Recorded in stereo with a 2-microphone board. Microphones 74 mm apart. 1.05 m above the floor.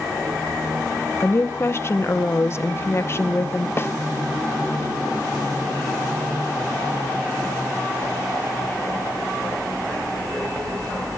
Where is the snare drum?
35° left (ahead or behind), 0.7 m.